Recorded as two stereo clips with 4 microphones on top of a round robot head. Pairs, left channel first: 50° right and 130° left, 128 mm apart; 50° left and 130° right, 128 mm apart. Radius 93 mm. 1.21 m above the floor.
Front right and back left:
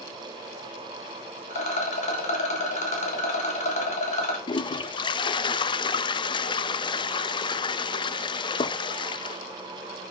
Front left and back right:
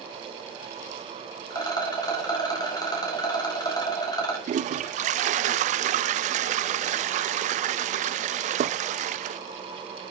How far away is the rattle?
About 2.5 m.